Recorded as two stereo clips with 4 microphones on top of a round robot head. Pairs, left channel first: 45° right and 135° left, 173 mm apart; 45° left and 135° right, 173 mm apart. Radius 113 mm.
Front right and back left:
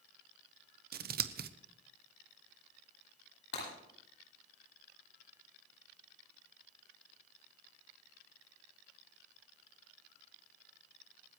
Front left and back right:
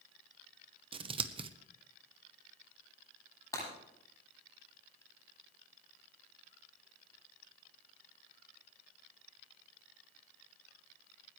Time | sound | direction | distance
0.9 | scissors | 165° left | 0.8 m
3.5 | breaking glass | 30° right | 10 m